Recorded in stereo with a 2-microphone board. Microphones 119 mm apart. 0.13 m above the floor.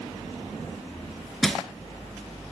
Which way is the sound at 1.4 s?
5° left (ahead or behind).